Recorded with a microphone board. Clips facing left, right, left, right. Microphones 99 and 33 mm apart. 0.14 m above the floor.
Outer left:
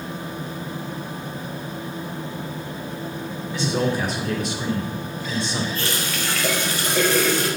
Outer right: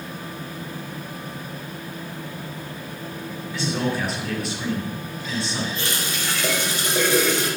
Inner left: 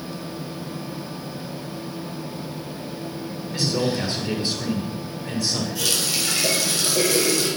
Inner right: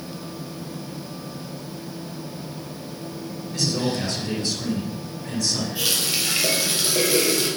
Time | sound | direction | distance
3.5 | a man speaking | 20° left (ahead or behind) | 2.5 m
5.8 | a running tap | 20° right (ahead or behind) | 2.5 m